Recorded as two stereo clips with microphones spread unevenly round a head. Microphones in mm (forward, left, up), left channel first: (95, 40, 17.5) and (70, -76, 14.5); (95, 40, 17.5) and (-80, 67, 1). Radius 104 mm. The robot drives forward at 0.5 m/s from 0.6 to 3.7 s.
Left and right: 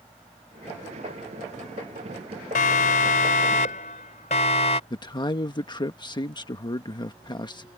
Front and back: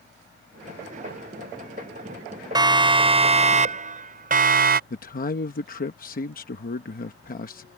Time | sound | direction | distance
2.5 | a siren | 105° left | ?
4.9 | a man speaking | 30° left | ?